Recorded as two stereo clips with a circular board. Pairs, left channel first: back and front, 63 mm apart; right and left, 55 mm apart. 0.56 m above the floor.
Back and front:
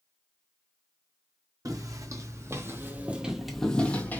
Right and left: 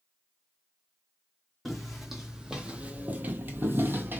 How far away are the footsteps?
About 1.1 m.